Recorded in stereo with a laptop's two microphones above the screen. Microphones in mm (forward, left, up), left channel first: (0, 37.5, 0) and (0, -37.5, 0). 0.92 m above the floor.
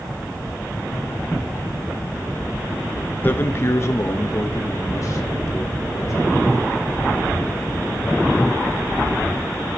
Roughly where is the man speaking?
Left.